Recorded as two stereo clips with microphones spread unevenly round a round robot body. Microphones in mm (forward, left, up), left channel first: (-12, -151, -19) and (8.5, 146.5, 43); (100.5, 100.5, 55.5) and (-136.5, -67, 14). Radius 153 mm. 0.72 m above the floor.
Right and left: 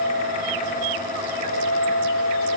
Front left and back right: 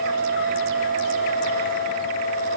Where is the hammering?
No hammering in this recording.